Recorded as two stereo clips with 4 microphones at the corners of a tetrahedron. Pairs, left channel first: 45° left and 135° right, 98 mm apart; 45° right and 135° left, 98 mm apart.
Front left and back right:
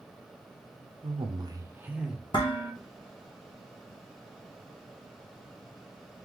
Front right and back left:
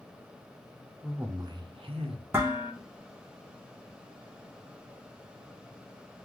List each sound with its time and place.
1.0 s a man speaking: 145° right, 0.6 m; by 2.2 s 140° left, 1.0 m
2.3 s dishes clattering: 70° left, 1.1 m